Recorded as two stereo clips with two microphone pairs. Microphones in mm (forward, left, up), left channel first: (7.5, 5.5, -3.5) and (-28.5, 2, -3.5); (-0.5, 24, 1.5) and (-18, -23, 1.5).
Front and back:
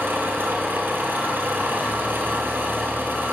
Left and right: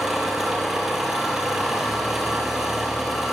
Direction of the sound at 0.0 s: 165° left.